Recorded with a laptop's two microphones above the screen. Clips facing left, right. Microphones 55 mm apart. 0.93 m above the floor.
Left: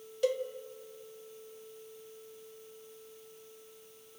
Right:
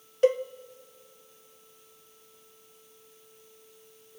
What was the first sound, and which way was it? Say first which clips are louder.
A cowbell: right 8 dB; 40° right (ahead or behind).